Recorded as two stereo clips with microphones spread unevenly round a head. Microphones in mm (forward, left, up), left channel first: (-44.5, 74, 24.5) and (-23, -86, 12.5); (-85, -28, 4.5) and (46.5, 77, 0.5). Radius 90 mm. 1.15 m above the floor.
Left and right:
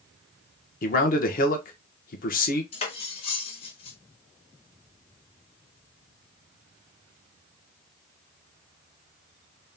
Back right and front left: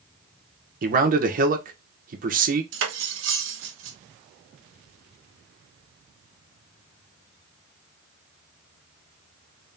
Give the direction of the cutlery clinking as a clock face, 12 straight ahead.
11 o'clock.